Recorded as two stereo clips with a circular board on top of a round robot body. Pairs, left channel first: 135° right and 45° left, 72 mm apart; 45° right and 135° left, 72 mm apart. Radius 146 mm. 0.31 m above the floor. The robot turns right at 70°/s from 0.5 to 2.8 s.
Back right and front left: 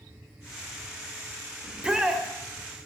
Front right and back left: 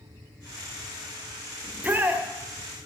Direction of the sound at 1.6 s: 90° left.